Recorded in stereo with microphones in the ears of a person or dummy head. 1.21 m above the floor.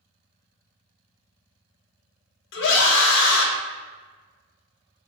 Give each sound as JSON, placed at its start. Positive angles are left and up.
{"t": 2.5, "sound": "a scream", "side_deg": 70, "distance_m": 1.0}